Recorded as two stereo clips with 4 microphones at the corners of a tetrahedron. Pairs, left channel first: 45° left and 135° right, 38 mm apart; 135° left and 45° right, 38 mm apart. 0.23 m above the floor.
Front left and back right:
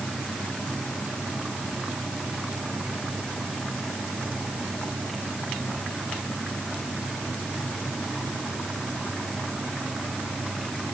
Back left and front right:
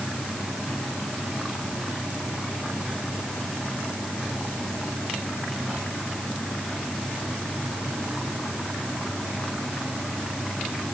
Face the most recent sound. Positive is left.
No sound to turn to.